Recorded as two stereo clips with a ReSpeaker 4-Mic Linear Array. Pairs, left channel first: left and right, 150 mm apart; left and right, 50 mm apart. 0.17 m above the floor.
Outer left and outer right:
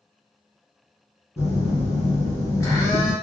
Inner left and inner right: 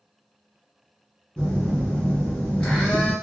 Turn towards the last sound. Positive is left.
turn(degrees=20)  # may be behind; listen again after turning